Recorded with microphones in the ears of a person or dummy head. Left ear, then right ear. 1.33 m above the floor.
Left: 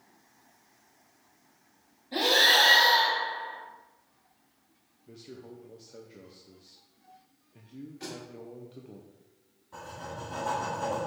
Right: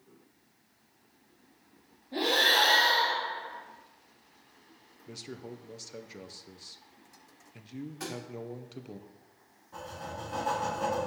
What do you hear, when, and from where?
2.1 s breathing: 75° left (ahead or behind), 2.5 m
5.1 s a man speaking: 55° right (ahead or behind), 0.6 m
8.0 s a thud: 50° right (ahead or behind), 1.7 m
9.7 s writing: 10° left (ahead or behind), 3 m